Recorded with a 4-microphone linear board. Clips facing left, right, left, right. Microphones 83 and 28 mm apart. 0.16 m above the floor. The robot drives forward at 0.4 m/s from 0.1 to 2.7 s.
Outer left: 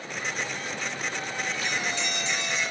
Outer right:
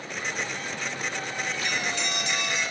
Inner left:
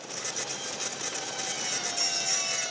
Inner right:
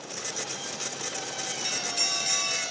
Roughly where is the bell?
Right.